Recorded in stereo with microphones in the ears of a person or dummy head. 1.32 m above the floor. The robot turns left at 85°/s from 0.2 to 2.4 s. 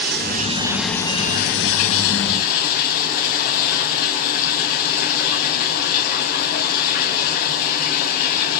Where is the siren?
I don't hear a siren.